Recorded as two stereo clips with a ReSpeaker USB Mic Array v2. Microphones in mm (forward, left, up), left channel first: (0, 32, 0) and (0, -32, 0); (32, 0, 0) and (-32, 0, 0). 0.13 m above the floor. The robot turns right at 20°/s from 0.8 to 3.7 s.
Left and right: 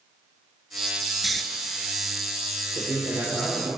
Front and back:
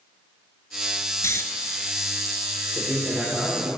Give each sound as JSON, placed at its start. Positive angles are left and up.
{"t": 1.2, "sound": "snoring", "azimuth_deg": 0, "distance_m": 0.6}
{"t": 2.8, "sound": "a man speaking", "azimuth_deg": -120, "distance_m": 3.5}